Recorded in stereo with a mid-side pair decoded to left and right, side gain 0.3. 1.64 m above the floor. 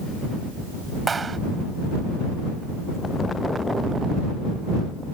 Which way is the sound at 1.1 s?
50° right.